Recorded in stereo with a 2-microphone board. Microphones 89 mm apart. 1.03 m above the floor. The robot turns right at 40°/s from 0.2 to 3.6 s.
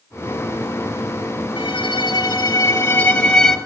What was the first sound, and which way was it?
A violin, 90° left.